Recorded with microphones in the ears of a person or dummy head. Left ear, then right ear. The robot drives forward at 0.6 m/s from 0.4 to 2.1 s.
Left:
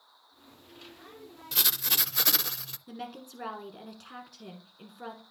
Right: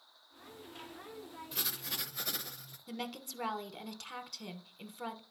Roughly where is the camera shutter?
No camera shutter in this recording.